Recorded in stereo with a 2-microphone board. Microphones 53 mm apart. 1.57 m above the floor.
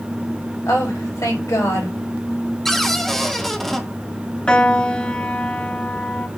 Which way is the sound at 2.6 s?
Centre (ahead or behind).